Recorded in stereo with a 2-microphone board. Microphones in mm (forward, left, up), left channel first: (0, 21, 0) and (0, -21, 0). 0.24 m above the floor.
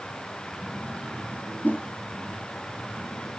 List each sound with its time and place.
1.6 s a whoosh: 50° left (ahead or behind), 3 m